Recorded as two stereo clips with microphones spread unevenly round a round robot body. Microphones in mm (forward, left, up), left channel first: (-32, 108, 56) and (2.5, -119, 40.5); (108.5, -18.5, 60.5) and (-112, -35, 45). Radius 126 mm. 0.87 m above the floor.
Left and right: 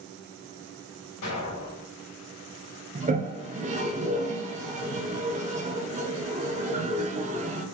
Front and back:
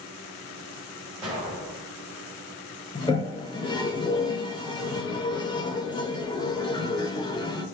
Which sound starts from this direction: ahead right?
A toilet flushing, at 3.0 s.